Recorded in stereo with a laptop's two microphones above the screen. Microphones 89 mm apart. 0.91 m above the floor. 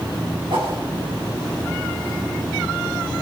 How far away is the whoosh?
About 8.5 m.